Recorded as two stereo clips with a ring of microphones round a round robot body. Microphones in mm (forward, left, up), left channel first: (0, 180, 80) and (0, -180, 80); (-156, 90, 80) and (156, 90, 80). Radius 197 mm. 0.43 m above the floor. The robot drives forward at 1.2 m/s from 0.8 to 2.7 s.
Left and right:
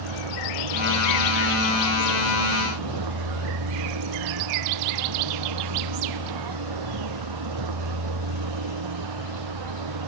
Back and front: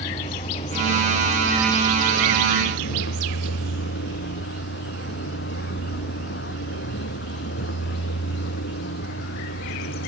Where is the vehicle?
105° right; by 10.1 s 120° right.